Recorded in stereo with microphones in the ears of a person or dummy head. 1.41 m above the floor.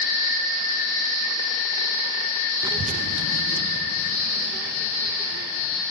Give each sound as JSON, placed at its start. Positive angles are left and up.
{"t": 2.6, "sound": "a child speaking", "side_deg": -20, "distance_m": 0.7}